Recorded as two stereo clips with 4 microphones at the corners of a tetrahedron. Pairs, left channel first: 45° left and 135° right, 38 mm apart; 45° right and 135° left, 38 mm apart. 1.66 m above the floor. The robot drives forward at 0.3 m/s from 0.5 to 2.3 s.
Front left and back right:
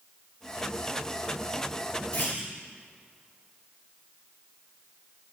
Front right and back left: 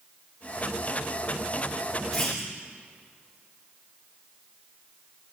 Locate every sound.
2.1 s a clunk: 35° left, 2 m